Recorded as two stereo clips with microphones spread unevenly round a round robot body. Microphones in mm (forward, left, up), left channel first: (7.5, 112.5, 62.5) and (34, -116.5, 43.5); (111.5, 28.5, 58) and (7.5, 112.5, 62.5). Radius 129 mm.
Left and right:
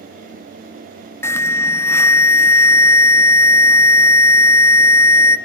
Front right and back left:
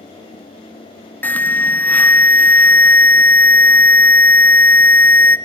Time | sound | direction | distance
1.2 | an alarm | 20° left | 0.7 m